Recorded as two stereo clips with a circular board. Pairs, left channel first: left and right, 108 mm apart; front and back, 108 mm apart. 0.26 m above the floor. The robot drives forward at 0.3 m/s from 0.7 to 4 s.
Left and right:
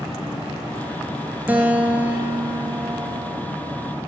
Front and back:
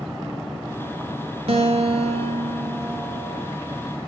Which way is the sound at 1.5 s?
165° right.